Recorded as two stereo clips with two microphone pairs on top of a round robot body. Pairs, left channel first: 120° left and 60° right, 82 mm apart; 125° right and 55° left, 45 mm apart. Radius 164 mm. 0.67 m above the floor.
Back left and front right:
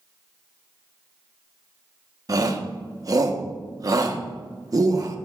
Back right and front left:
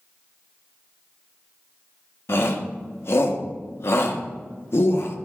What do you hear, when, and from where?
2.3 s a shout: 100° right, 1.2 m